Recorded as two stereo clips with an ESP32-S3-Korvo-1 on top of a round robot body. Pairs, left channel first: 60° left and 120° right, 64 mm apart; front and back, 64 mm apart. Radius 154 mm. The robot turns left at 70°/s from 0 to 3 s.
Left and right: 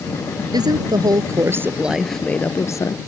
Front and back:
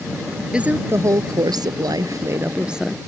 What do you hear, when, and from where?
0.5 s a woman speaking: 105° right; by 3.0 s 85° left